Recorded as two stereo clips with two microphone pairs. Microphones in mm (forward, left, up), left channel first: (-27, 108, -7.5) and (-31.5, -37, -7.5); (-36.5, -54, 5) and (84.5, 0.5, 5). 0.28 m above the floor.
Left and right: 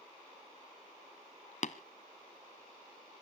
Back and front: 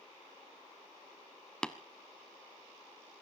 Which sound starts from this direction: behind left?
Tapping, at 1.6 s.